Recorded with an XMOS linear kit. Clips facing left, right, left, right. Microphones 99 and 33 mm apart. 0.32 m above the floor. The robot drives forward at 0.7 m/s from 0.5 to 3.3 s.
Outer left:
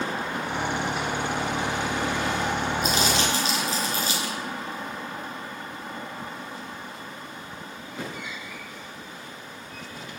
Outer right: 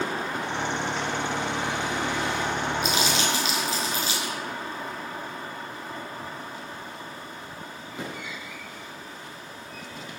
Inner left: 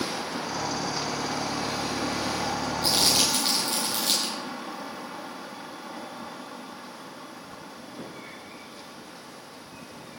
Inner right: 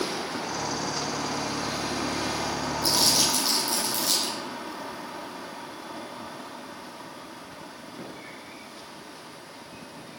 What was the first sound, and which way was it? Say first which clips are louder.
Crumpling: outer left 1 dB, even; 45° left (ahead or behind).